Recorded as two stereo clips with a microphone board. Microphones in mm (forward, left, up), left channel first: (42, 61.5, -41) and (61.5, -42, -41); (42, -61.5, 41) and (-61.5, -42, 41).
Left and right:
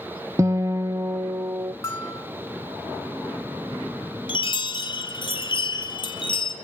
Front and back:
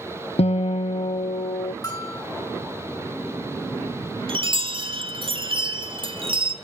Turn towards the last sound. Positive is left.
turn(degrees=135)